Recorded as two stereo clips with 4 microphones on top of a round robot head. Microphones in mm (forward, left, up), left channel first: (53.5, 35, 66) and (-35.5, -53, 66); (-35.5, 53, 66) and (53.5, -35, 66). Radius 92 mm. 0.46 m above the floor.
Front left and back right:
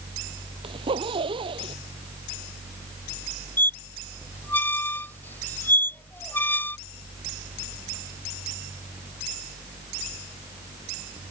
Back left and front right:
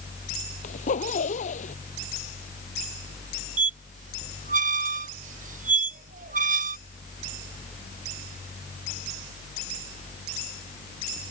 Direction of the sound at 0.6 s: 170° left.